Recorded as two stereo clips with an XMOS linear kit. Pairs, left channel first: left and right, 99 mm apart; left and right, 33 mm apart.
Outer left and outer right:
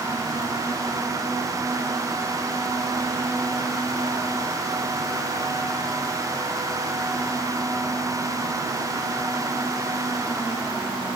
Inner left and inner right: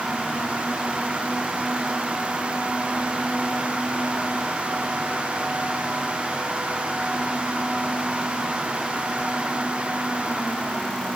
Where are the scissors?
I don't hear scissors.